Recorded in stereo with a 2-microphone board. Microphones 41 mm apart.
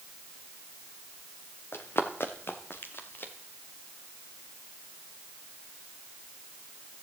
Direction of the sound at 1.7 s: 80° left.